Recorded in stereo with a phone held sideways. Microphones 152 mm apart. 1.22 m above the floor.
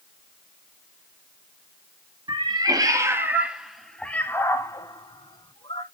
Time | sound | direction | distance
2.3 | a cat meowing | 35° right (ahead or behind) | 1.2 m